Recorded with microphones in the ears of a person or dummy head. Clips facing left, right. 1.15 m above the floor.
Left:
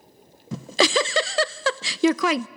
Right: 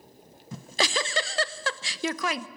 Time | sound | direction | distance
0.5 | a giggle | 55° left (ahead or behind) | 0.5 m